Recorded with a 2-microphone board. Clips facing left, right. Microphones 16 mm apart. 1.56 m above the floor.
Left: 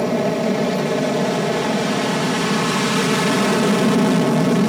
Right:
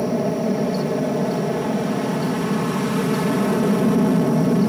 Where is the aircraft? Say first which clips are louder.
Left 2 dB; 60° left (ahead or behind); by 4.7 s 55° left (ahead or behind).